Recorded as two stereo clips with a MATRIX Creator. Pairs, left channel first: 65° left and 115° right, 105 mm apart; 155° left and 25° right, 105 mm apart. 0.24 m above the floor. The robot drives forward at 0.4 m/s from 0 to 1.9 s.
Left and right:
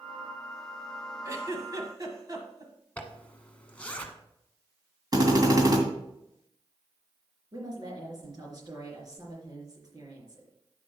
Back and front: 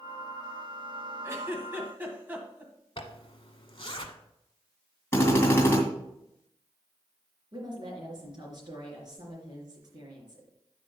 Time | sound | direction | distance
1.2 | a giggle | 70° right | 1.6 m
3.0 | a zipper | 145° left | 1.0 m
5.1 | a drill | 145° right | 2.5 m
7.5 | a woman speaking | 65° right | 3.5 m